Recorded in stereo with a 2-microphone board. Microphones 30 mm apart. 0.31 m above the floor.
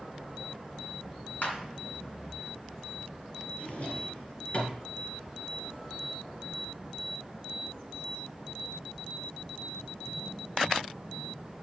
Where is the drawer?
50° left (ahead or behind), 2 m.